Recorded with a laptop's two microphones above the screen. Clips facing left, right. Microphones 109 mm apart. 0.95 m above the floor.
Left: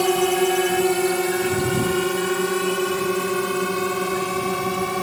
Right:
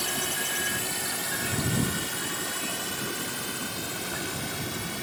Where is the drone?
65° left (ahead or behind); by 5.0 s 75° left (ahead or behind).